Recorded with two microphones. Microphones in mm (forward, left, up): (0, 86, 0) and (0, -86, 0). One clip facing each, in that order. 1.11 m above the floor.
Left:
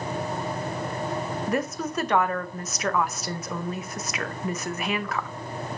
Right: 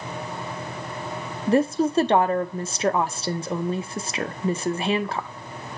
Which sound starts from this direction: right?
A woman speaking, at 1.5 s.